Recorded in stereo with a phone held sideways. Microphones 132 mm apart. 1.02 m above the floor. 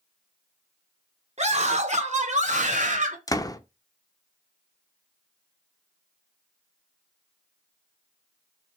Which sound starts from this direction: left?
A door slam, at 3.3 s.